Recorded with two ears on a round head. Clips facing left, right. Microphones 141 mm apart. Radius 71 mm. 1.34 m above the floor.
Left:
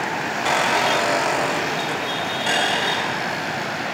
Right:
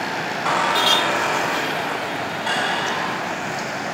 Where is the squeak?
30° left (ahead or behind), 5 m.